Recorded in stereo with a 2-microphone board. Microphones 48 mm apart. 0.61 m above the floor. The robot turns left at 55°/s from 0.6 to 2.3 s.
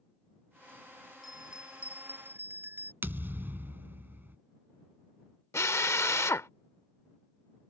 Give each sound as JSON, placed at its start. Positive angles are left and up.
{"t": 1.2, "sound": "a bell", "azimuth_deg": 0}
{"t": 3.0, "sound": "a thud", "side_deg": -45}
{"t": 5.5, "sound": "a drill", "side_deg": 80}